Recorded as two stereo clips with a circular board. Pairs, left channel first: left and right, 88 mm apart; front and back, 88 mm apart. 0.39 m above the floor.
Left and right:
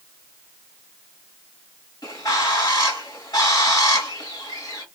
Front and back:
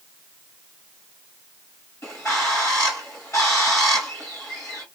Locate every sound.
2.0 s a bird: 55° left, 1.6 m